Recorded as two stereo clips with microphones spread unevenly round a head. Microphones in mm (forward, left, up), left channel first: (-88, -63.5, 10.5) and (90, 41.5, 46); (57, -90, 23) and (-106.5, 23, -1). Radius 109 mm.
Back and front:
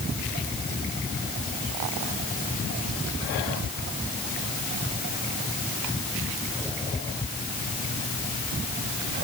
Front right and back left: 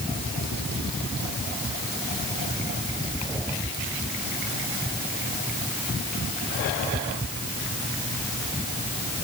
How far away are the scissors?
No scissors in this recording.